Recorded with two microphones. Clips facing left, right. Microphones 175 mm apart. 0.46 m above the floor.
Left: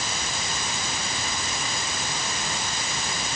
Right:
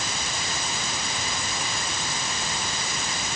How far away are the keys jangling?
I don't hear keys jangling.